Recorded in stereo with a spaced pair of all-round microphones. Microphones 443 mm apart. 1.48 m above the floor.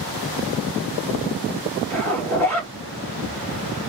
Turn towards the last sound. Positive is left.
turn(degrees=-40)  # may be behind; listen again after turning